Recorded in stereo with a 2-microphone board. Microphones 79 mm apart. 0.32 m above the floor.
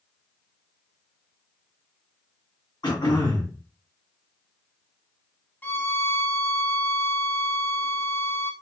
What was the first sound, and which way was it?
Throat clearing, 70° left (ahead or behind).